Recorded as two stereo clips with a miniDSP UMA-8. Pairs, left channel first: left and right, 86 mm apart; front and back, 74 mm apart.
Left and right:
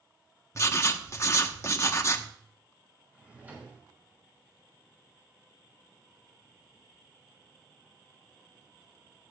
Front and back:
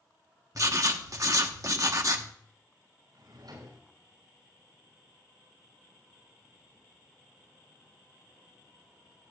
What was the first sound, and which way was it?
Writing, 145° left.